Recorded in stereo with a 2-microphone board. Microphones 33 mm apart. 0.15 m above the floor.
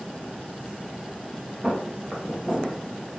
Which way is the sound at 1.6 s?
10° right (ahead or behind).